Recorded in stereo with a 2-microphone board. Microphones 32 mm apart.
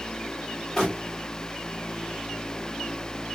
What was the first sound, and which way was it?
Crumpling, 15° left (ahead or behind).